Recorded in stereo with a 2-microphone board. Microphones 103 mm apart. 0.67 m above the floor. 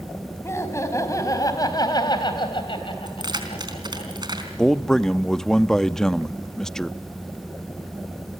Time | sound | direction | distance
0.4 | laughter | 25° left (ahead or behind) | 5 m
3.1 | keys jangling | 45° right (ahead or behind) | 4 m
4.6 | a man speaking | 5° left (ahead or behind) | 0.6 m